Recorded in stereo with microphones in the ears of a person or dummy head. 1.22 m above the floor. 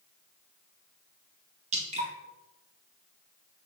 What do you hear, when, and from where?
1.7 s dripping: 40° right (ahead or behind), 1.9 m